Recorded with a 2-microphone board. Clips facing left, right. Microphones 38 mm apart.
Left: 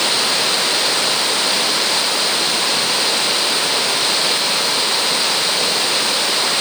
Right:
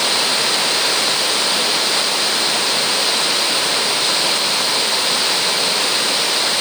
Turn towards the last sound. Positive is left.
No sound to turn to.